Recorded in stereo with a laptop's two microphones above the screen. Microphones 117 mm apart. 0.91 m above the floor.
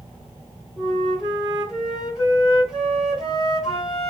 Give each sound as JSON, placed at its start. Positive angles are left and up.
{"t": 0.8, "sound": "a flute", "side_deg": 0, "distance_m": 2.5}